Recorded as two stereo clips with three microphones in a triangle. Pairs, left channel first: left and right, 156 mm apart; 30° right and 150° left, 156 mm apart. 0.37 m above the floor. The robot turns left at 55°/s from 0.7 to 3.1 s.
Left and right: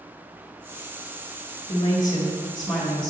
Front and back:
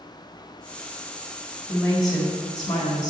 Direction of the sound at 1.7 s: 50° left.